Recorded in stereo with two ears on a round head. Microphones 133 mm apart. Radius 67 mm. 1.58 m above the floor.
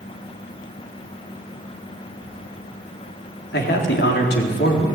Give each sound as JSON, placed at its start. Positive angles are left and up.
{"t": 2.2, "sound": "keys jangling", "side_deg": -10, "distance_m": 3.5}
{"t": 3.5, "sound": "a man speaking", "side_deg": 85, "distance_m": 4.0}